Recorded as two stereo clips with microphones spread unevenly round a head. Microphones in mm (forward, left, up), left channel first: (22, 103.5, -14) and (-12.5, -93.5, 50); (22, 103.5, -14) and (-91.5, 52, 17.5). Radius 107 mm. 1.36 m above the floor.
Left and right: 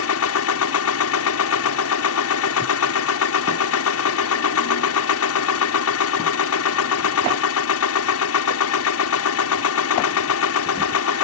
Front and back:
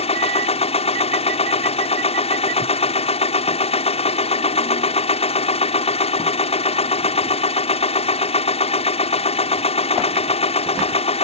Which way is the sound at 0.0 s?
65° left.